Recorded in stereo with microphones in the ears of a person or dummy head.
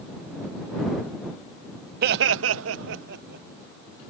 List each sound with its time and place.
2.0 s laughter: 60° right (ahead or behind); by 3.5 s 55° right (ahead or behind)